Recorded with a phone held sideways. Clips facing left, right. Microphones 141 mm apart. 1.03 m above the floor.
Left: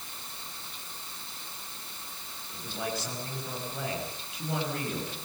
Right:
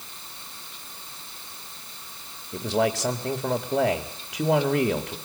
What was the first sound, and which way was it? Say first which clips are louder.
A man speaking: right 12 dB; 80° right.